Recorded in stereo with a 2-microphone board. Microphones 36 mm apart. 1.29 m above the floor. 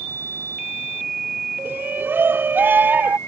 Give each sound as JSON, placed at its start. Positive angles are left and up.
{"t": 1.6, "sound": "a shout", "side_deg": -80}